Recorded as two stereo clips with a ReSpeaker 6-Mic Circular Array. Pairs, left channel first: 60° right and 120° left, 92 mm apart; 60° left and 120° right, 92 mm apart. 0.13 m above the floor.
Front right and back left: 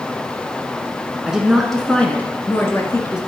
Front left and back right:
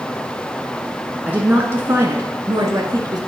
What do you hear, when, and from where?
1.2 s a woman speaking: 170° right, 1.1 m; by 3.2 s 95° right, 1.5 m